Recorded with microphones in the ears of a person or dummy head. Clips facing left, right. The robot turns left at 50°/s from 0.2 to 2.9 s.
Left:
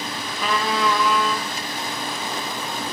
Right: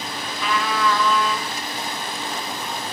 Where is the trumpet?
40° left, 0.7 m; by 1.5 s 15° right, 0.7 m.